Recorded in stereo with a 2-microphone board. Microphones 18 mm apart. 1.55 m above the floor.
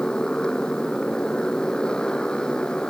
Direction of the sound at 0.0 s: 55° left (ahead or behind).